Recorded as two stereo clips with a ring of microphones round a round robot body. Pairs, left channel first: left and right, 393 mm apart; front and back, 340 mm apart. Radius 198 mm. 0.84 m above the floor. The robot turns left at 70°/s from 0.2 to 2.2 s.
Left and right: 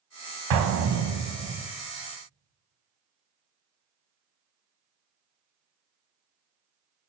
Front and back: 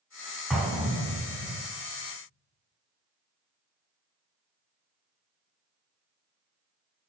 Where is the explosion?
90° right, 0.8 m; by 1.7 s 170° right, 0.8 m.